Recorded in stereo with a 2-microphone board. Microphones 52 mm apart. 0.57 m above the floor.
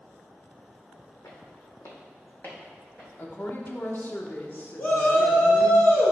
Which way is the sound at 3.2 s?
40° left (ahead or behind).